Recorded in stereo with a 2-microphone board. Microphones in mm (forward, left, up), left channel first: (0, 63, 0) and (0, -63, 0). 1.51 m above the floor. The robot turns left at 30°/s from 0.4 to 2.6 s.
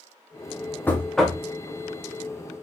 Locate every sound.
0.9 s knocking: 15° left (ahead or behind), 0.9 m; by 1.4 s 5° right (ahead or behind), 0.9 m